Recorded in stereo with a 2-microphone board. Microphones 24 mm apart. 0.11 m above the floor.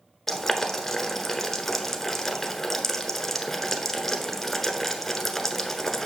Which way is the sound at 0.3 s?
10° left (ahead or behind).